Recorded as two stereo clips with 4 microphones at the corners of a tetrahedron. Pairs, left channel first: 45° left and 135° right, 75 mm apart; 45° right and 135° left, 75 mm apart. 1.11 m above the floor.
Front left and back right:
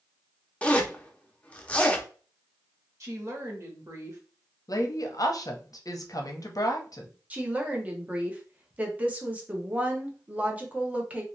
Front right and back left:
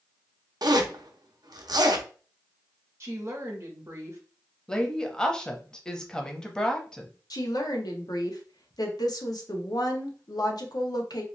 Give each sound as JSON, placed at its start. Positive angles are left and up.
{"t": 0.6, "sound": "a zipper", "azimuth_deg": 115, "distance_m": 0.5}
{"t": 3.0, "sound": "a woman speaking", "azimuth_deg": 180, "distance_m": 1.0}
{"t": 4.7, "sound": "a woman speaking", "azimuth_deg": 30, "distance_m": 0.7}
{"t": 7.3, "sound": "a woman speaking", "azimuth_deg": -65, "distance_m": 0.8}